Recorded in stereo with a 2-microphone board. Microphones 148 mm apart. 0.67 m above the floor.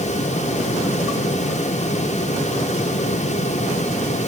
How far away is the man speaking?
No man speaking in this recording.